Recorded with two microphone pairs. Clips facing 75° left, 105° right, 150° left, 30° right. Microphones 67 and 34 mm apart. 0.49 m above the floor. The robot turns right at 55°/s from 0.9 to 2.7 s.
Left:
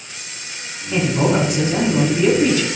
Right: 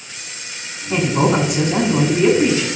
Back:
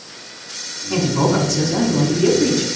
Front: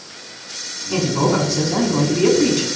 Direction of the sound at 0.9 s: 130° right.